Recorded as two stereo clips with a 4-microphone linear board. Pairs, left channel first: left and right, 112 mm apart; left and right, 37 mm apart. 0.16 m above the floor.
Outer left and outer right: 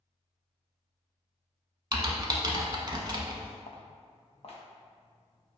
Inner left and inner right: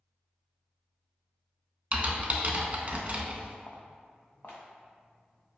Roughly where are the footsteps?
Left.